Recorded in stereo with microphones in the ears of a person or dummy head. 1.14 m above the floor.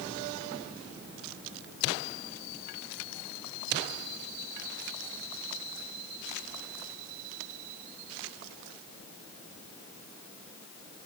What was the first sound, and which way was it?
Only background noise.